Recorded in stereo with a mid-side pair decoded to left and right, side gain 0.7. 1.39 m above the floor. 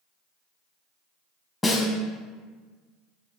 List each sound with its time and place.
1.6 s a snare drum: 15° left, 0.8 m